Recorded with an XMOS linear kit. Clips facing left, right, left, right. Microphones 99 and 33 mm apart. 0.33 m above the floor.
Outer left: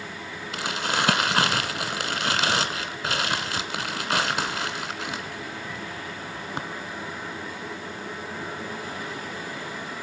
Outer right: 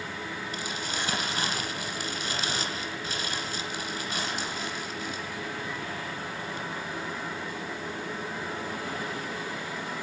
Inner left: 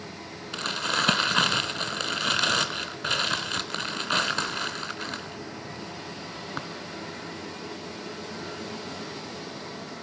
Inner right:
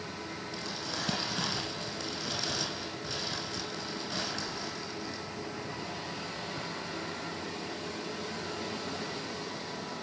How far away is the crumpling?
About 1.3 m.